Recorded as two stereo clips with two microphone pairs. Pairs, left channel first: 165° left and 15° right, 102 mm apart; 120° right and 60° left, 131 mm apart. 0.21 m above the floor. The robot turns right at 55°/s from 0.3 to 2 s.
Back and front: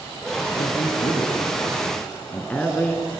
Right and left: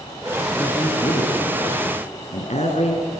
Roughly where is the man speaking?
Behind.